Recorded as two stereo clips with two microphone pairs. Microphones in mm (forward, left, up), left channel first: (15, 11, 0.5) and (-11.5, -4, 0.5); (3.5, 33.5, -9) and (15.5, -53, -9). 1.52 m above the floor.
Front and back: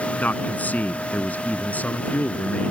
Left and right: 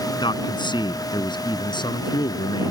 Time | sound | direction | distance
0.2 | a man speaking | 65° left | ?